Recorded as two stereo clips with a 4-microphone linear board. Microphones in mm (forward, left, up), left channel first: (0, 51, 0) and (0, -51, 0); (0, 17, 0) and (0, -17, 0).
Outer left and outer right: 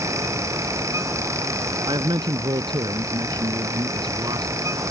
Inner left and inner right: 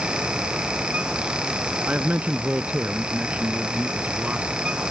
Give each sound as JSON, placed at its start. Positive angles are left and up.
{"t": 1.9, "sound": "a man speaking", "side_deg": -45}